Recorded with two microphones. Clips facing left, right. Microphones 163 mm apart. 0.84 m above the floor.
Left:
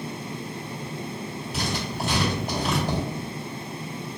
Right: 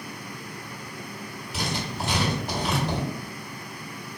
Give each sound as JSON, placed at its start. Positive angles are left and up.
{"t": 1.5, "sound": "writing", "side_deg": 45, "distance_m": 2.0}